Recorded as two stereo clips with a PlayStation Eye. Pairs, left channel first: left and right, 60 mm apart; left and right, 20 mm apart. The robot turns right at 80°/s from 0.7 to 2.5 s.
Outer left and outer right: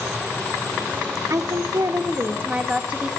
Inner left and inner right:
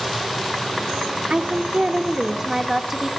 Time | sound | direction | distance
1.3 | a woman speaking | 120° right | 0.9 m